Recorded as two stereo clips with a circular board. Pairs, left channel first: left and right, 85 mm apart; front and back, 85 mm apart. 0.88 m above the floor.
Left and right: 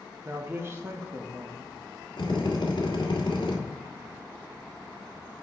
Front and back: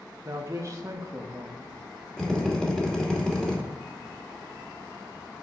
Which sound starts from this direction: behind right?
A man speaking, at 0.2 s.